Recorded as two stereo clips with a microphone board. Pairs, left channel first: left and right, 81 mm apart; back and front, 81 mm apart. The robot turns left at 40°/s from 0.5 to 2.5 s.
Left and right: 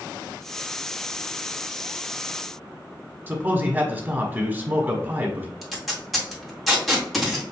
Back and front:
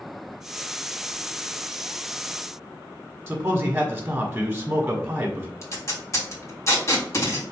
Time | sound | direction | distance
3.3 | a man speaking | 50° right | 1.2 m
5.6 | tape being pulled | straight behind | 1.5 m